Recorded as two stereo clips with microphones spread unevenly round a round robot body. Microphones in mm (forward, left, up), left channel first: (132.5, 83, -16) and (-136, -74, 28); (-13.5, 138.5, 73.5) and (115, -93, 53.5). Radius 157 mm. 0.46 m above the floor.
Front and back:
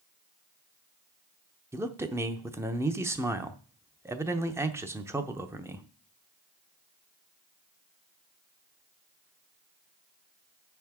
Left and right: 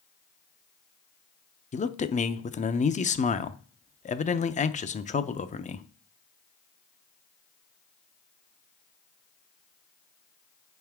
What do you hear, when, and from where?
1.7 s a man speaking: 120° left, 0.7 m